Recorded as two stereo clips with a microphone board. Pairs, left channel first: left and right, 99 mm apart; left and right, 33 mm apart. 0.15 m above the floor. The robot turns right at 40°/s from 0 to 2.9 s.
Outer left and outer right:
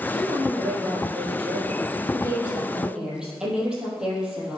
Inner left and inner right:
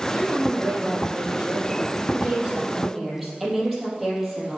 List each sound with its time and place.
0.1 s a woman speaking: 115° right, 3.5 m; by 4.6 s 5° right, 3.5 m